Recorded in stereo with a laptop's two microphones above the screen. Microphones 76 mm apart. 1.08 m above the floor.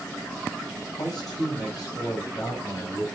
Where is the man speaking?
55° left (ahead or behind), 6 m; by 3.0 s 50° left (ahead or behind), 4.5 m.